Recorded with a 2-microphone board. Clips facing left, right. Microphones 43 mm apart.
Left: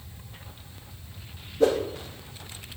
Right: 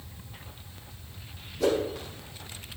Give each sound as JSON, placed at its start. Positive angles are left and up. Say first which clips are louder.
{"t": 1.6, "sound": "a whoosh", "louder": "left 4 dB", "side_deg": 30, "distance_m": 7.5}